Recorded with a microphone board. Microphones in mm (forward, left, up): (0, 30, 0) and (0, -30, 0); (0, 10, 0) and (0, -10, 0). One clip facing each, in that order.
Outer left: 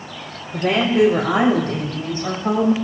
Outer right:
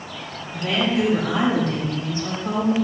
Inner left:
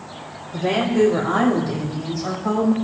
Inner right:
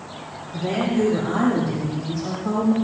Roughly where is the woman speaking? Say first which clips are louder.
Outer left 5 dB, inner left 3 dB; left.